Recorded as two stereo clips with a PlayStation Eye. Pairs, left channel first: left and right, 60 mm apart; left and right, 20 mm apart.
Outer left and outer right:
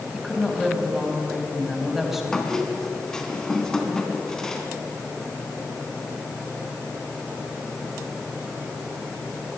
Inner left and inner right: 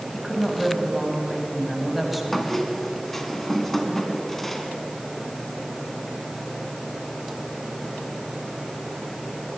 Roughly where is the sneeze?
No sneeze in this recording.